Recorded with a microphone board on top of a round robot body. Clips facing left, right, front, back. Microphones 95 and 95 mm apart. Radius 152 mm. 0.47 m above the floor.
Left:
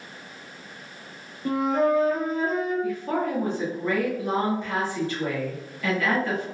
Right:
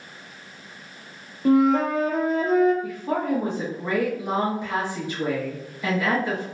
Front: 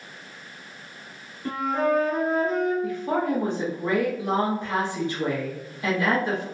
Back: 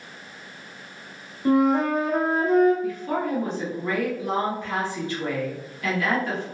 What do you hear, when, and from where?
1.4 s a flute: 110° right, 0.5 m
2.8 s a woman speaking: 35° right, 1.1 m